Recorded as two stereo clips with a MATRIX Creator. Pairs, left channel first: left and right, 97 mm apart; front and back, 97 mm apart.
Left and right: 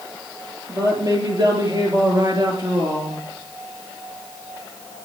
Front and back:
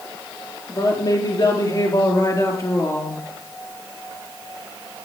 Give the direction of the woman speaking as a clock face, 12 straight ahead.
1 o'clock.